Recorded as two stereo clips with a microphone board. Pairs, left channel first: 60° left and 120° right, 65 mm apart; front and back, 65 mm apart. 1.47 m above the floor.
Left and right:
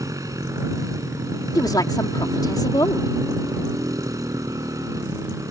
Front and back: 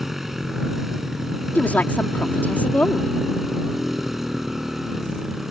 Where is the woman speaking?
65° left.